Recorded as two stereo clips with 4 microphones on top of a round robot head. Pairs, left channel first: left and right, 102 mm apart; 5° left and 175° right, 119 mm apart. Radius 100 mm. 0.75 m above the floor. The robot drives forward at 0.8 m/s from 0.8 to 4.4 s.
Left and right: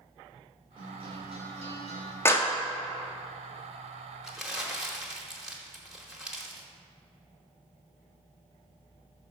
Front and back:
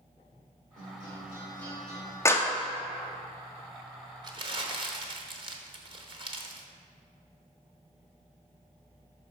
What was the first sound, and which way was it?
A guitar, 55° right.